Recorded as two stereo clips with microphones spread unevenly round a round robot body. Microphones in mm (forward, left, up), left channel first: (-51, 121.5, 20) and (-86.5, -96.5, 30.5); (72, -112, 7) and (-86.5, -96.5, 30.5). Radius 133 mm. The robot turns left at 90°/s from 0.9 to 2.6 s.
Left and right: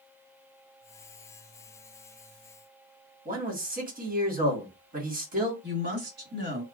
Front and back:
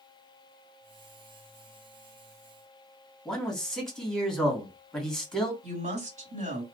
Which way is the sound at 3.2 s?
75° right.